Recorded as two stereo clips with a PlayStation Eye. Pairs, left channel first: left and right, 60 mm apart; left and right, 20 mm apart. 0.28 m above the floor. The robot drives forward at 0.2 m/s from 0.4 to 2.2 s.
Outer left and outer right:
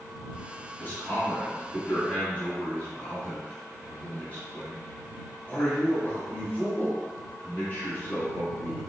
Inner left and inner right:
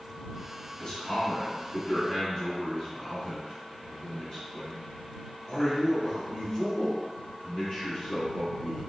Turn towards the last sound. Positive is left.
turn(degrees=25)  # may be behind; listen again after turning